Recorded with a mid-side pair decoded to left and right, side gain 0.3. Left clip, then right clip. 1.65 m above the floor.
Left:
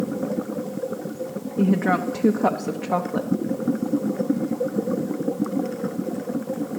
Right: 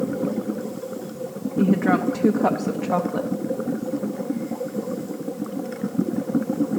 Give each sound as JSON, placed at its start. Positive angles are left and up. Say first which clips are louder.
{"t": 1.6, "sound": "a woman speaking", "louder": "right 1 dB", "azimuth_deg": 10, "distance_m": 0.7}